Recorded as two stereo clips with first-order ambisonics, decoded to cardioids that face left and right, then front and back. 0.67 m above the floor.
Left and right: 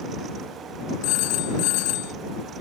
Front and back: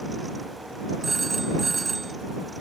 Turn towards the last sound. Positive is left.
turn(degrees=105)